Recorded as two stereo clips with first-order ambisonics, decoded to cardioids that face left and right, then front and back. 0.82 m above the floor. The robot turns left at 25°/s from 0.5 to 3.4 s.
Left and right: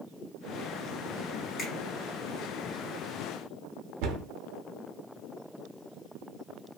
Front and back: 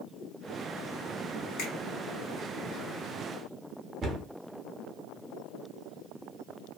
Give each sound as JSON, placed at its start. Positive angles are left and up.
{"t": 1.6, "sound": "a finger snap", "azimuth_deg": 25, "distance_m": 1.6}
{"t": 4.0, "sound": "a cupboard door", "azimuth_deg": -110, "distance_m": 0.7}